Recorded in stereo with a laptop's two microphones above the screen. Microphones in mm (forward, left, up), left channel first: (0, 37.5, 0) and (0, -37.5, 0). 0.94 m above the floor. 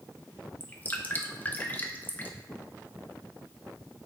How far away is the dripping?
About 1.0 m.